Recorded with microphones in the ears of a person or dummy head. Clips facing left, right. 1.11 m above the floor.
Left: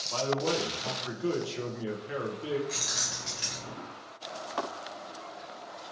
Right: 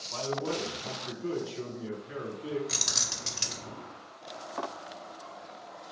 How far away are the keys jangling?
About 0.5 m.